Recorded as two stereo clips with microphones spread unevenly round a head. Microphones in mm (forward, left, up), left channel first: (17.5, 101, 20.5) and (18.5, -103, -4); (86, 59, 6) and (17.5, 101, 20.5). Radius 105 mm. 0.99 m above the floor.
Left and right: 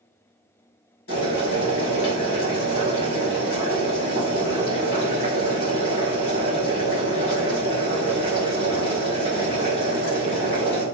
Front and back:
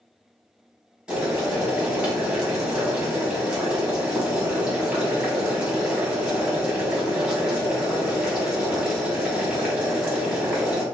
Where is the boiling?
75° left, 2 m.